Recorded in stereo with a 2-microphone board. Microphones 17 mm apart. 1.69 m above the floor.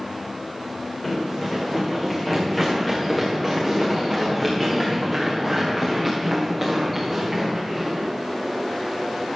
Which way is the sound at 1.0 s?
20° left (ahead or behind).